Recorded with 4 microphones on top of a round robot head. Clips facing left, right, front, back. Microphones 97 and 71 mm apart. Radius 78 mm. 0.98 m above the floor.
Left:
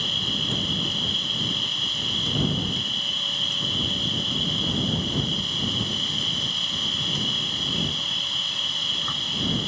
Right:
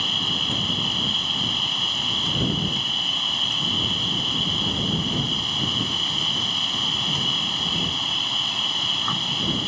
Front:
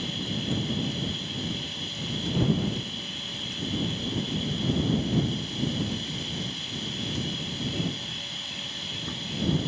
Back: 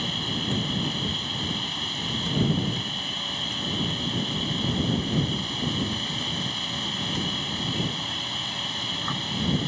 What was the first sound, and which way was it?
An insect, 125° right.